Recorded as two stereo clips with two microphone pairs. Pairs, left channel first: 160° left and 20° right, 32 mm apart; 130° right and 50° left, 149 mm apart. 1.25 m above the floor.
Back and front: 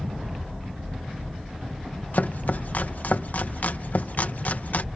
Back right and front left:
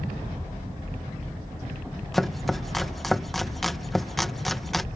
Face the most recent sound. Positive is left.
turn(degrees=140)